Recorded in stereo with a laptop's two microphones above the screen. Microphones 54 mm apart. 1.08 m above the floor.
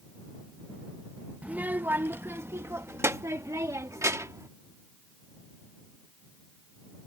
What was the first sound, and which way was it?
A child speaking, 25° right (ahead or behind).